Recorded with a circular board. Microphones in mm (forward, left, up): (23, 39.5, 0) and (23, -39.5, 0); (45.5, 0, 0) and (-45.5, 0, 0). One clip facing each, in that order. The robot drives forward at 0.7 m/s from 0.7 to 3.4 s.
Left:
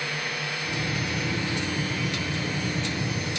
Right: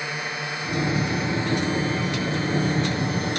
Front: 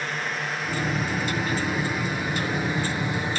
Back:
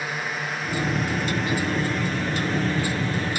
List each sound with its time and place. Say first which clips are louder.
0.0 s a drone: right 2 dB, even; 105° right; by 3.4 s 70° right